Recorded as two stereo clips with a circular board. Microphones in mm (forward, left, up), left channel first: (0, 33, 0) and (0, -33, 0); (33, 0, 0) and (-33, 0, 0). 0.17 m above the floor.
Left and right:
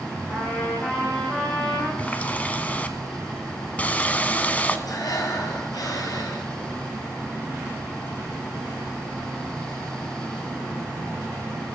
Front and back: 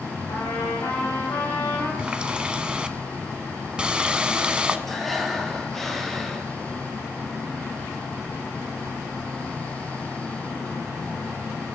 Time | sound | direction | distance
0.3 | a trumpet | 20° left | 8 m
2.0 | a running tap | 125° left | 1.0 m
4.9 | breathing | 85° left | 2 m